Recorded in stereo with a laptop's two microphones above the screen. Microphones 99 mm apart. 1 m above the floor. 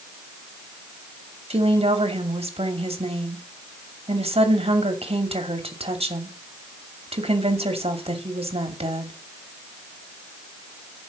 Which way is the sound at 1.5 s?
75° right (ahead or behind).